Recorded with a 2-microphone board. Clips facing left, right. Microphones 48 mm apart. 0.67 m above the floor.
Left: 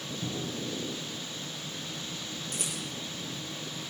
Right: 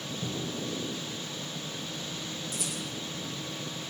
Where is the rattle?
70° left (ahead or behind), 6.5 m.